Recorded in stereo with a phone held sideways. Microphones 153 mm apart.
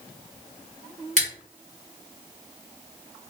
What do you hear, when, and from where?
1.2 s scissors: 55° right (ahead or behind), 1.6 m